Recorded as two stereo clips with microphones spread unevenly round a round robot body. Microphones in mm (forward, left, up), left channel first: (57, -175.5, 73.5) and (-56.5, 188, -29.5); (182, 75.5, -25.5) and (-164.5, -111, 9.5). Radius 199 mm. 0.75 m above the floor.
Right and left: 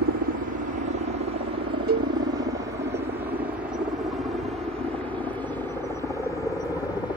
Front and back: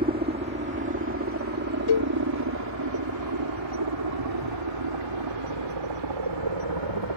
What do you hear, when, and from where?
0.0 s a helicopter: 145° left; by 7.2 s 160° right
1.9 s a cowbell: 45° left